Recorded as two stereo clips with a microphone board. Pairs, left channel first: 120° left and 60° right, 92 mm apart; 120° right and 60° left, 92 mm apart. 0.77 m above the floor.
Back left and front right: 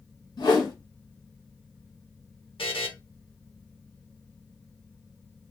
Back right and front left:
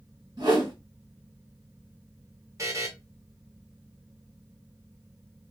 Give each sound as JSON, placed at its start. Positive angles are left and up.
{"t": 0.4, "sound": "a whoosh", "azimuth_deg": 90, "distance_m": 1.4}
{"t": 2.6, "sound": "a buzzer", "azimuth_deg": 115, "distance_m": 0.7}